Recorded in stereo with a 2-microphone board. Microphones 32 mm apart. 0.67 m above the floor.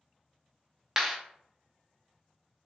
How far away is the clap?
About 0.8 m.